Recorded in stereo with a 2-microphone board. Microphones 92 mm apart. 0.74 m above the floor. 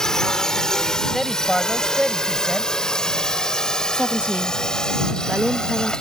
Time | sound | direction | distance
0.0 | a drone | 5° left (ahead or behind) | ?
1.1 | a man speaking | centre (ahead or behind) | ?
3.9 | a woman speaking | 15° right (ahead or behind) | ?